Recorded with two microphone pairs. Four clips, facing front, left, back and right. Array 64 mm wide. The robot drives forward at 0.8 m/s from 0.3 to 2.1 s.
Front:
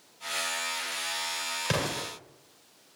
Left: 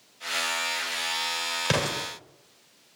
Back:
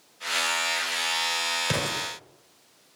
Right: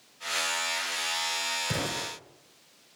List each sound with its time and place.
1.6 s an explosion: 80° left, 1.7 m; by 2.0 s 90° left, 1.7 m